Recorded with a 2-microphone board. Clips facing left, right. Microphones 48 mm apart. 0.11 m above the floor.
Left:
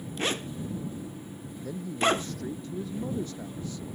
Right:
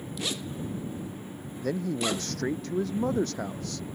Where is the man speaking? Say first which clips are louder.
Left 2 dB; 70° right (ahead or behind).